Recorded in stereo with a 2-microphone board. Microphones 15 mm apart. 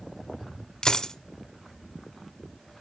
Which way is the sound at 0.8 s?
45° left (ahead or behind).